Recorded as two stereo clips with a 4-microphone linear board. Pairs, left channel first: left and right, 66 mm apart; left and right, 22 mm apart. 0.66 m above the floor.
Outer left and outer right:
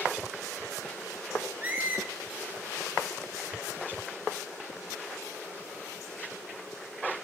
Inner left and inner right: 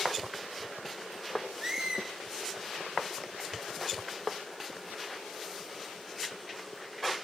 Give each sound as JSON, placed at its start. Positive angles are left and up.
{"t": 1.6, "sound": "a squeak", "side_deg": -25, "distance_m": 1.8}